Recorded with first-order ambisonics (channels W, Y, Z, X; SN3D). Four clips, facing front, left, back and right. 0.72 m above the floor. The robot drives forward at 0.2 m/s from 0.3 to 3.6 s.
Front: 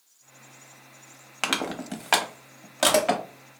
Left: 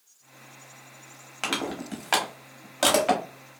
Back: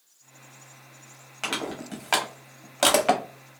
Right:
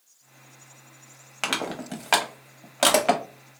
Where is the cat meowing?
I don't hear a cat meowing.